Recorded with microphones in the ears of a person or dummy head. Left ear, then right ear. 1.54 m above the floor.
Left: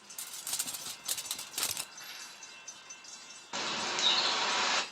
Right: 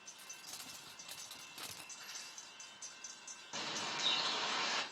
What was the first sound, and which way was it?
Crumpling, 80° left.